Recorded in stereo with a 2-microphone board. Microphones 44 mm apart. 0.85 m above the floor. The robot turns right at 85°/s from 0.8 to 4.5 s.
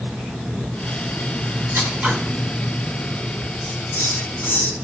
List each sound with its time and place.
1.7 s scissors: 60° right, 3 m; by 2.1 s 25° right, 3 m
3.6 s a hiss: 50° left, 3 m; by 4.7 s 125° left, 3 m